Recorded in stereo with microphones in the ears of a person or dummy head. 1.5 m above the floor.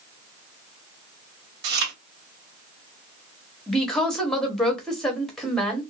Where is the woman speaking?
5° left (ahead or behind), 1.0 m.